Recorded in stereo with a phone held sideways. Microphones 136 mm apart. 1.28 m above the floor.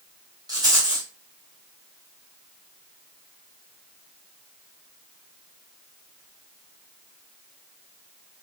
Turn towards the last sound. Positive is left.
turn(degrees=-30)  # may be behind; listen again after turning